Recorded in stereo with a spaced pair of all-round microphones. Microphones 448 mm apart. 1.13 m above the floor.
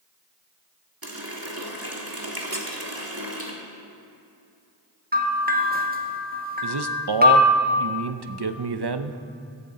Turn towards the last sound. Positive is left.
turn(degrees=-60)  # may be behind; listen again after turning